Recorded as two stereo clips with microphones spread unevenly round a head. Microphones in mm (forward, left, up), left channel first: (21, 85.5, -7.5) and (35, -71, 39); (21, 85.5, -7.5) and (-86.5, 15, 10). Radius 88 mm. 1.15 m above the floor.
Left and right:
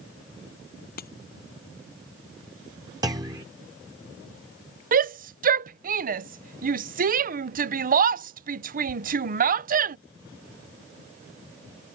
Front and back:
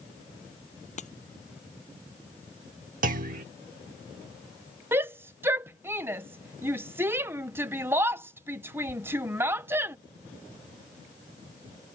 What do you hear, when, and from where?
1.0 s breaking glass: 65° left
3.0 s a clunk: 150° right
4.9 s a shout: 70° right